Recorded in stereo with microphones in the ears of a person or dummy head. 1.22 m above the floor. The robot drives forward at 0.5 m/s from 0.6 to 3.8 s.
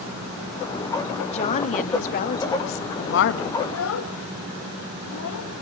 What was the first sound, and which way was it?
A woman speaking, 35° left (ahead or behind).